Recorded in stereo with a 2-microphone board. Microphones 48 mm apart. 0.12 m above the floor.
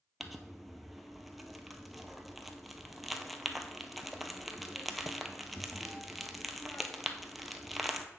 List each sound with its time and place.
0.2 s crumpling: centre (ahead or behind), 0.8 m